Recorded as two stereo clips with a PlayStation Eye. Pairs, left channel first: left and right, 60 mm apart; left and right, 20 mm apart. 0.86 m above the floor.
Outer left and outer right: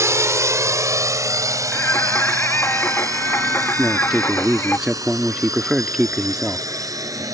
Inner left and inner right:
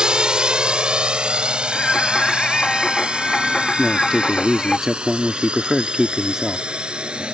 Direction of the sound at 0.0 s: 50° right (ahead or behind).